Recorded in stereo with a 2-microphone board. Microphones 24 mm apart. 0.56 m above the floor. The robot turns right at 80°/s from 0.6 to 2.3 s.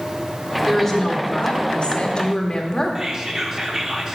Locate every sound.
0.7 s a woman speaking: 10° left, 1.4 m; by 3.0 s 140° left, 1.4 m
3.0 s whispering: 25° right (ahead or behind), 1.0 m